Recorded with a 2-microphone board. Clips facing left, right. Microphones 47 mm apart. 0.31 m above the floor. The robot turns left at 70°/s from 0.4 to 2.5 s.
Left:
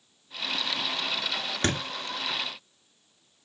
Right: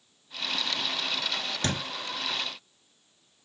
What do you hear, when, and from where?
1.6 s a thud: 40° left (ahead or behind), 1.2 m; by 1.8 s 30° left (ahead or behind), 1.2 m